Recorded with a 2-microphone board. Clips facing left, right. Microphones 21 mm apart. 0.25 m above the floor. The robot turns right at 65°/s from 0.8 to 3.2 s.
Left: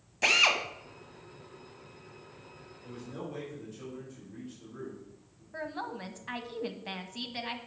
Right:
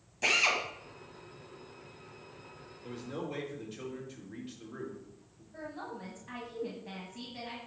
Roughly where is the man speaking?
Right.